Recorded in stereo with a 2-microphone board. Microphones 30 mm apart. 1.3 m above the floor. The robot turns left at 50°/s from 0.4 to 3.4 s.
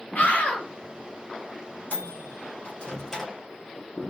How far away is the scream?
About 1.2 m.